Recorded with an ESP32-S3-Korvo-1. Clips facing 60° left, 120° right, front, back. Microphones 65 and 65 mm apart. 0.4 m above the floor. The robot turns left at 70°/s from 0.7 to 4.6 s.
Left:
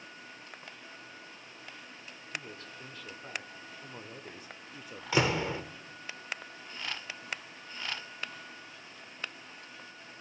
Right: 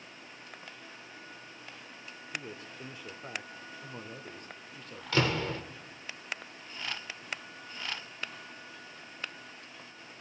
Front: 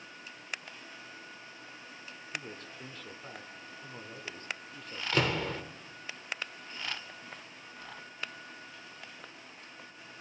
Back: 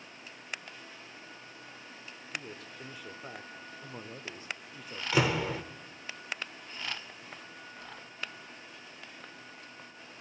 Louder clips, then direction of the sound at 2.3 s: Right 1 dB, even; 85° right.